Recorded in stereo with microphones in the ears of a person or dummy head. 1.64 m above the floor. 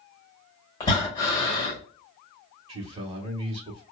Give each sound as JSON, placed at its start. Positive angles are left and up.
{"t": 0.8, "sound": "breathing", "side_deg": 15, "distance_m": 1.6}
{"t": 2.7, "sound": "a man speaking", "side_deg": -35, "distance_m": 1.0}